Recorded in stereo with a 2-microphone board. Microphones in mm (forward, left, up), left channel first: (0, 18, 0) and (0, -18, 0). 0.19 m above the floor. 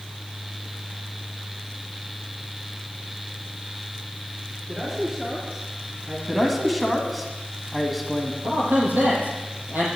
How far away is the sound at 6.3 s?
About 1.6 m.